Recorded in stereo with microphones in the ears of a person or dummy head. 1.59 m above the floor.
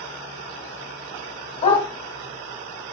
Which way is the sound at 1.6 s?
30° left (ahead or behind).